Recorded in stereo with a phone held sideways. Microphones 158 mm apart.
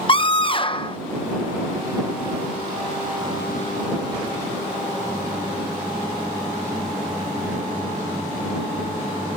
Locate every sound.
0.1 s a scream: 35° left (ahead or behind)